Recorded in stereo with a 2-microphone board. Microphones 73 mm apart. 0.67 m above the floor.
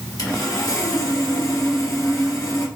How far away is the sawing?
About 1.9 m.